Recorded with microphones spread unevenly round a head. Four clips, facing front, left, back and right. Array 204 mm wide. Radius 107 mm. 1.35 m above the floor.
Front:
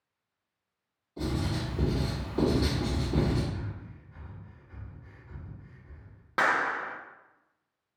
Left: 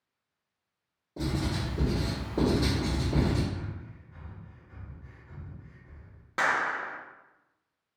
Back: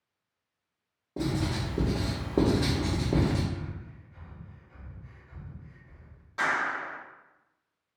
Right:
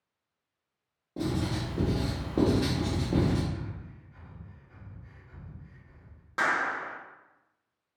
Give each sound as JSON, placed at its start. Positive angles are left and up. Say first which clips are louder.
{"t": 1.2, "sound": "writing", "louder": "right 1 dB, back 2 dB", "azimuth_deg": -160, "distance_m": 1.5}
{"t": 3.5, "sound": "breathing", "louder": "even, back 1 dB", "azimuth_deg": 40, "distance_m": 1.2}
{"t": 6.4, "sound": "a clap", "louder": "even, front 2 dB", "azimuth_deg": 10, "distance_m": 0.6}